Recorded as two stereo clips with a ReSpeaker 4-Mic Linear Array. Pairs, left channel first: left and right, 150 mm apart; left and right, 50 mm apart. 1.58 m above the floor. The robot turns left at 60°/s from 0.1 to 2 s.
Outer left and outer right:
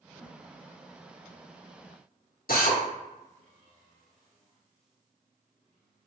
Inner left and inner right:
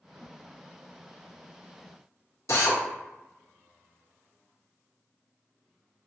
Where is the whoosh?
40° left (ahead or behind), 1.7 m; by 0.4 s 20° left (ahead or behind), 1.7 m.